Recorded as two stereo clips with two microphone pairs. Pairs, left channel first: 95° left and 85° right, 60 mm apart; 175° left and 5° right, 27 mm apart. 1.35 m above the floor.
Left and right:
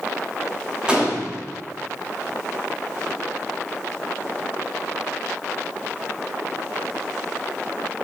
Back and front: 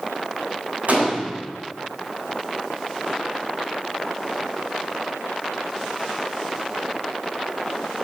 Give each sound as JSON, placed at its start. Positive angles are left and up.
{"t": 0.9, "sound": "a gunshot", "azimuth_deg": -15, "distance_m": 3.0}